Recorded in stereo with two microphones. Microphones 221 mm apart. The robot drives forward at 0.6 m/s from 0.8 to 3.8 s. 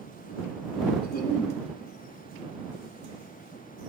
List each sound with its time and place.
1.0 s a giggle: 45° left (ahead or behind), 0.8 m; by 1.5 s 35° left (ahead or behind), 1.0 m